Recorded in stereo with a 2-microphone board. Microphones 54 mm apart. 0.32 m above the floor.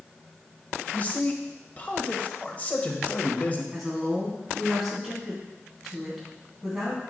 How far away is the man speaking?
About 1.2 m.